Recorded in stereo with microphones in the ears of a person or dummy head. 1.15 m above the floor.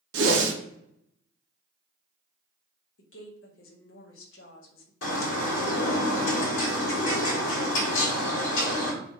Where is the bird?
75° left (ahead or behind), 1.4 m.